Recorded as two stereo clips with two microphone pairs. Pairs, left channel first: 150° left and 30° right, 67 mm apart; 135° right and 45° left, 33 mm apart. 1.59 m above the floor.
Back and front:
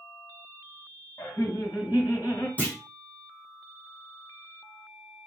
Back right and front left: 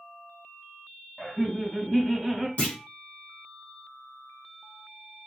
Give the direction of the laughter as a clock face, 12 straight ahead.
7 o'clock.